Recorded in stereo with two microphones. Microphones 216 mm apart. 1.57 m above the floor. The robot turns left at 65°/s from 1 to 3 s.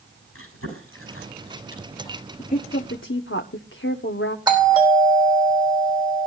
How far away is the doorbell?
About 5 m.